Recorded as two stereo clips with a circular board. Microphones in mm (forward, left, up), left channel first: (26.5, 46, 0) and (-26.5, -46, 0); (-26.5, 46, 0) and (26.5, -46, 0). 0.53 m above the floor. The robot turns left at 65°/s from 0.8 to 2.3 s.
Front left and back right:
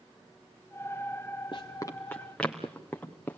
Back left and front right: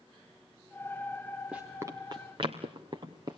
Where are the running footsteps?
20° left, 3 m; by 3.4 s 15° right, 3.5 m.